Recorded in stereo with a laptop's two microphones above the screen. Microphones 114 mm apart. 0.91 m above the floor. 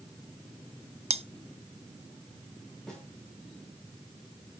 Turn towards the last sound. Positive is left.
turn(degrees=5)  # may be behind; listen again after turning